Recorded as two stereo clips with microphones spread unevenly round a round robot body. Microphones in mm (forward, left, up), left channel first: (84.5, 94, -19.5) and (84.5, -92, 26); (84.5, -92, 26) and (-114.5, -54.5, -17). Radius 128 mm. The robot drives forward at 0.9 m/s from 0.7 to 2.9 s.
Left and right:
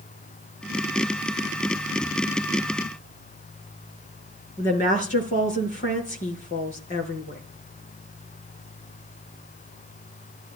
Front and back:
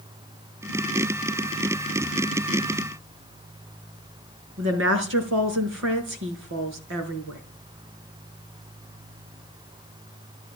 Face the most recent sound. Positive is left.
turn(degrees=145)